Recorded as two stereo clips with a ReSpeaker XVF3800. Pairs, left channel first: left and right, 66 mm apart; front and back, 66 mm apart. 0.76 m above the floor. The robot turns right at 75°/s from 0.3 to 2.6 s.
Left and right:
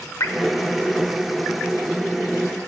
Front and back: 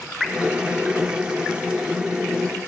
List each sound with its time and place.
0.2 s dripping: 95° left, 0.6 m